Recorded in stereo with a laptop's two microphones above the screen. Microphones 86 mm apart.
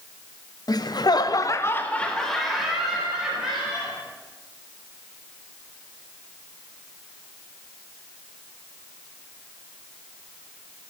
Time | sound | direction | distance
0.7 | laughter | 50° left (ahead or behind) | 0.8 m